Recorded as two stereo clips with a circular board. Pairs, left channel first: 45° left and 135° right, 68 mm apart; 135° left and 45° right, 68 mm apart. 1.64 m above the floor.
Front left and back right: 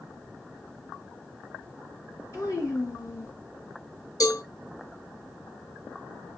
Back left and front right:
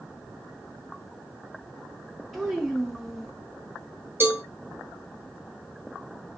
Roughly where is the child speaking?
Ahead left.